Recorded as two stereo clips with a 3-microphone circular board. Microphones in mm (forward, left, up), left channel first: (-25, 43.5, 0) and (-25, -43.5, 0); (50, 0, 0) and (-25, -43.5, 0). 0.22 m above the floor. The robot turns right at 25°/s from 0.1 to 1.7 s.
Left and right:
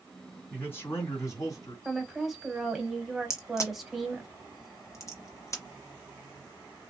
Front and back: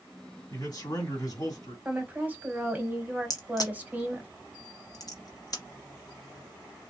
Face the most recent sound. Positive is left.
turn(degrees=50)